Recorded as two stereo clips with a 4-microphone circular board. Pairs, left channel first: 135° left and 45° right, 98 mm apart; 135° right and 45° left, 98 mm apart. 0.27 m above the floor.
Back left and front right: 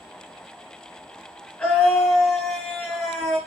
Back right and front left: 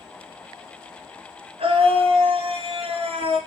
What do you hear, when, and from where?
1.6 s a scream: 60° left, 3.5 m